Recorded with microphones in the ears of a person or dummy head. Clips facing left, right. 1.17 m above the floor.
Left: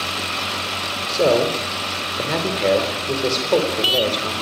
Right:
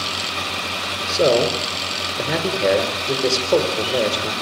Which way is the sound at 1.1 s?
10° right (ahead or behind).